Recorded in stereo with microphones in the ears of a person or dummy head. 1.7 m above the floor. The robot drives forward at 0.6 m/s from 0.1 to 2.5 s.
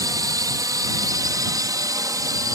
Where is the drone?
20° right (ahead or behind); by 2.6 s 15° right (ahead or behind).